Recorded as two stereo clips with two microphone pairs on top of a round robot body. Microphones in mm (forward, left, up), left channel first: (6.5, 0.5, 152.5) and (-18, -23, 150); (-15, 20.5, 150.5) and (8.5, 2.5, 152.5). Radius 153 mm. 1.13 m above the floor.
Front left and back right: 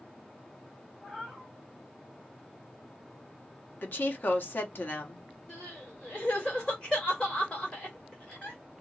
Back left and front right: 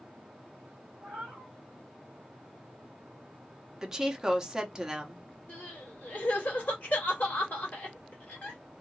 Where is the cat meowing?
25° right, 1.1 m.